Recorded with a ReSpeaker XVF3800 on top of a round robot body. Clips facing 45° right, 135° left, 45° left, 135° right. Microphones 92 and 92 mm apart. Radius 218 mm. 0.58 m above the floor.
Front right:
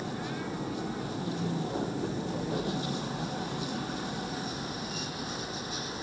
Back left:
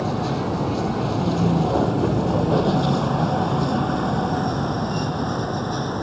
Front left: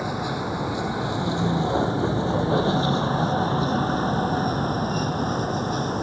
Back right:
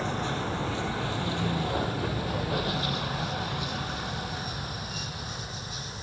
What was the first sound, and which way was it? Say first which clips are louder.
A vehicle: back left 12 dB, front left 4 dB; 125° left.